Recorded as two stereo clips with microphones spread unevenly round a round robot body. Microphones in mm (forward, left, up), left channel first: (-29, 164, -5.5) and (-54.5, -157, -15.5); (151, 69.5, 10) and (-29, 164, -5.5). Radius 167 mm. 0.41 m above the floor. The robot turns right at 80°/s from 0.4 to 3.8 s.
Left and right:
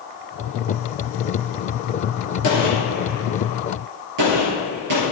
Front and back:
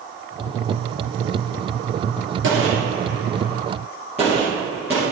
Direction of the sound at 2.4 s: 130° left.